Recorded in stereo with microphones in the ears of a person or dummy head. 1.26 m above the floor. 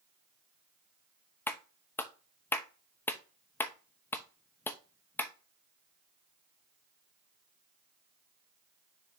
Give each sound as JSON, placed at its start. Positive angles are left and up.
{"t": 1.5, "sound": "a clap", "side_deg": 15, "distance_m": 0.7}